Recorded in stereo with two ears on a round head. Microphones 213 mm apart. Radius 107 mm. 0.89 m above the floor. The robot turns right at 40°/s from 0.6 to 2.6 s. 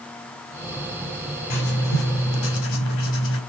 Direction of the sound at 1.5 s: 40° left.